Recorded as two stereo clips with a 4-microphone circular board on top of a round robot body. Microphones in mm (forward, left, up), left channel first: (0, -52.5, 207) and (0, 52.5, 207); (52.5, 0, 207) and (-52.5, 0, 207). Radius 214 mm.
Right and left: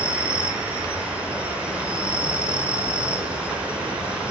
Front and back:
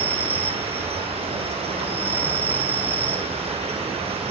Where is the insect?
170° left, 1.9 m.